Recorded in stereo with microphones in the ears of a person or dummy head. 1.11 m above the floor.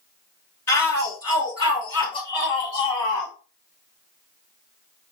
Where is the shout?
20° left (ahead or behind), 1.7 m; by 3.3 s 35° left (ahead or behind), 3 m.